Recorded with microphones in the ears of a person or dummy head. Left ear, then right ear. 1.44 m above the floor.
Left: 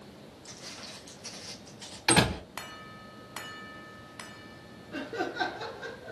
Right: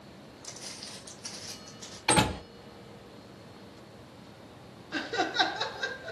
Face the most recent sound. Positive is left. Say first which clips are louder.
# right 5 dB
turn(degrees=-50)  # may be behind; listen again after turning